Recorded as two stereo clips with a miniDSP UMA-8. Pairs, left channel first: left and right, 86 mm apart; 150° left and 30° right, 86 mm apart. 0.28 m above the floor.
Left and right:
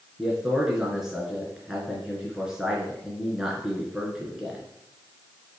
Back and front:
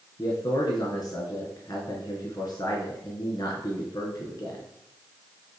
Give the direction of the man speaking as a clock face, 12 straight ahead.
6 o'clock.